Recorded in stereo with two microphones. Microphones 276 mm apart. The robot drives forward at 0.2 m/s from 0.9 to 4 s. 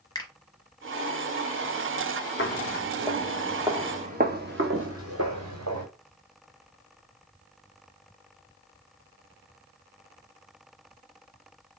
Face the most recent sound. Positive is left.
turn(degrees=-70)  # may be behind; listen again after turning